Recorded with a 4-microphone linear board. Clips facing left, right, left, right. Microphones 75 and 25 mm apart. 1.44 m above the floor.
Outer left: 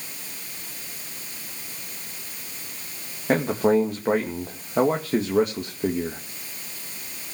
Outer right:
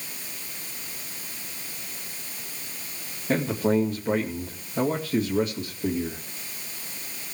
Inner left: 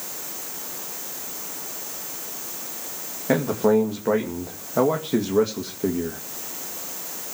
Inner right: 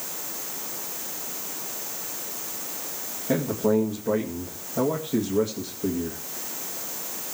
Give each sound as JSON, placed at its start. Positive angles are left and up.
{"t": 3.3, "sound": "a man speaking", "side_deg": 60, "distance_m": 2.0}